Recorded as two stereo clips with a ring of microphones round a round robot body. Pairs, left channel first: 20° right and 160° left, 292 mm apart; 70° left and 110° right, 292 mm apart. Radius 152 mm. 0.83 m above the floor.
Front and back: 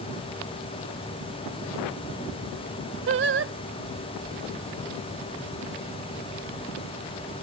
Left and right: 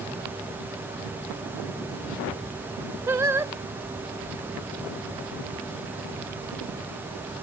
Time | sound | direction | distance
3.1 | singing | 170° left | ?